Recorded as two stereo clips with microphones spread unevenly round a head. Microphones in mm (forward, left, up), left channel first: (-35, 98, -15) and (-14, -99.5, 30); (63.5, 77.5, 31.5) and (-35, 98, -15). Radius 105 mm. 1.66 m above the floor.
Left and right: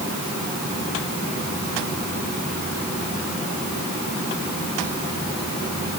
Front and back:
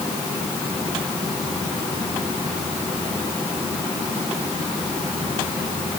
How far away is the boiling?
No boiling in this recording.